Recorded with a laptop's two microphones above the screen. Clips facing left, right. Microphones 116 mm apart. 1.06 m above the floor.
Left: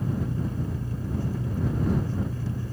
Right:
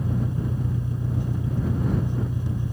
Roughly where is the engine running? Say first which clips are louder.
Right 1 dB; centre.